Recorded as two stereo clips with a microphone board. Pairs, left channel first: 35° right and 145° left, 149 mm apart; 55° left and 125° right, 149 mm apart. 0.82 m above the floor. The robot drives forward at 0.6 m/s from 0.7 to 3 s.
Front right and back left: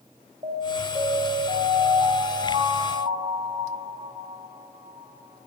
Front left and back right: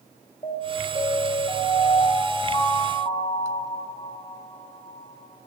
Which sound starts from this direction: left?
An alarm, at 0.4 s.